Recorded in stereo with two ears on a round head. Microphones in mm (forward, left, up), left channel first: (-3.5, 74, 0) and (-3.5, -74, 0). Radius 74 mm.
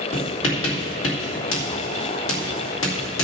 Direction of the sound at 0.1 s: 85° left.